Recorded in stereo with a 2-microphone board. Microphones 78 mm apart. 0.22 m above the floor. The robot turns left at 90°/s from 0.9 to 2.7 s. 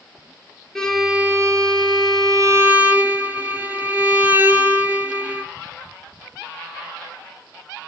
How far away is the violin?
About 0.7 m.